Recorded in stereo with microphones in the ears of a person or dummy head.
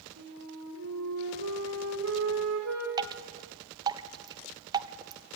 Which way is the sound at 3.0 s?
20° right (ahead or behind).